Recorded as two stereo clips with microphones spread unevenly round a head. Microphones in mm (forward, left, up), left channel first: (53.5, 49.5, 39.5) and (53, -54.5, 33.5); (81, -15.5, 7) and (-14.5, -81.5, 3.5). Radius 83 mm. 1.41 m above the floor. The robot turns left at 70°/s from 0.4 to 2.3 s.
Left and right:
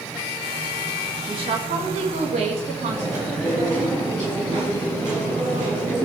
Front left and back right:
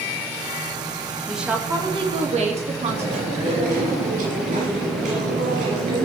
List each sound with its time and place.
1.3 s a woman speaking: 55° right, 2.5 m; by 3.8 s 125° right, 2.5 m
2.8 s chewing: 155° right, 7 m